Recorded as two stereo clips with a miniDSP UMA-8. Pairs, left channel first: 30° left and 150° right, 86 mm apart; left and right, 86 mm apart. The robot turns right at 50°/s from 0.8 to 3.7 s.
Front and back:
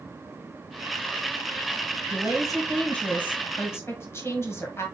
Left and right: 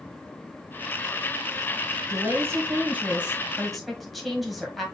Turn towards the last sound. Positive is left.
turn(degrees=0)